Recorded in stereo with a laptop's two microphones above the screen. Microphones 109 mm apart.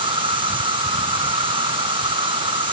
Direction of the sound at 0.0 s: 50° right (ahead or behind).